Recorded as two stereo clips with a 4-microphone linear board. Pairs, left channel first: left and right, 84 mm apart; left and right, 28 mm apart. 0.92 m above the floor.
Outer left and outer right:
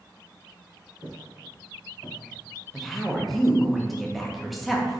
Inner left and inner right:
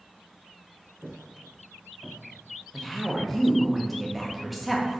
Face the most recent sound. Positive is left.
turn(degrees=0)  # may be behind; listen again after turning